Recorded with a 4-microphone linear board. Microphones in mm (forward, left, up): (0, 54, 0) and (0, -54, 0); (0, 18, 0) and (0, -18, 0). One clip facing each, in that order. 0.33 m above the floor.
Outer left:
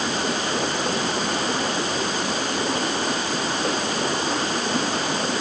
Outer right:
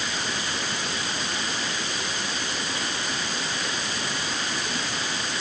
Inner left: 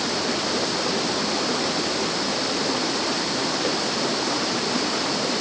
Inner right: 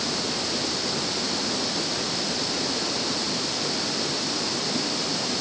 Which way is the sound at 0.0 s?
45° left (ahead or behind).